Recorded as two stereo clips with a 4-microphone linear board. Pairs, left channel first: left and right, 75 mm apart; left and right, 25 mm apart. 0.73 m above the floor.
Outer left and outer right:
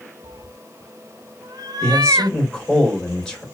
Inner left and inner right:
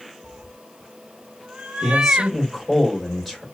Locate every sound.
0.2 s a cat meowing: 60° right (ahead or behind), 0.6 m
1.8 s a man speaking: 5° left (ahead or behind), 2 m